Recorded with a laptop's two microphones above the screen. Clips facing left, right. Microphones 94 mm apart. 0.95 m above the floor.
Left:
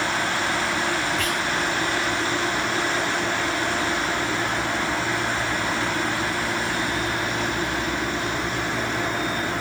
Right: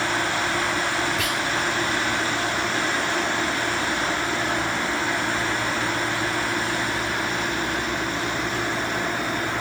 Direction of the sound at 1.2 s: 5° right (ahead or behind).